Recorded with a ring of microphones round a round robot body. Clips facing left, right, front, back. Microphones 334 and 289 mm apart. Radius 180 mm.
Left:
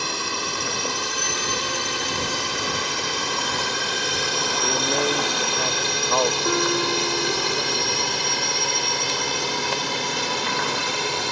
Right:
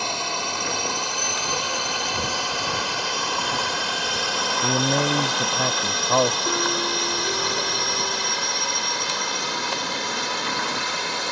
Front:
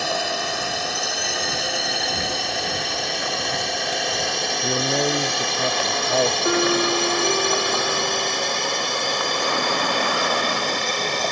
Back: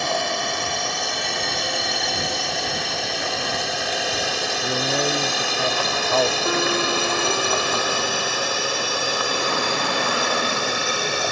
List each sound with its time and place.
0.0 s a drone: 80° left; by 11.3 s 105° left
4.6 s a man speaking: 85° right
6.5 s a piano: 70° left